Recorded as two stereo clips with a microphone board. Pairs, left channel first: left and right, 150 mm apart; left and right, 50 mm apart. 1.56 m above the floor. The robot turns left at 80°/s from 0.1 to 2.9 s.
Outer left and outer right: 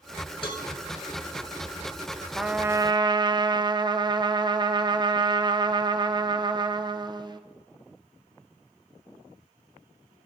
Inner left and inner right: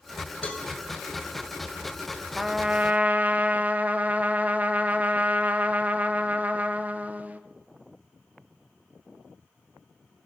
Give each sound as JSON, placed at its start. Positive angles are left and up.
{"t": 0.4, "sound": "a cowbell", "side_deg": 35, "distance_m": 1.4}
{"t": 2.4, "sound": "a trumpet", "azimuth_deg": 0, "distance_m": 0.6}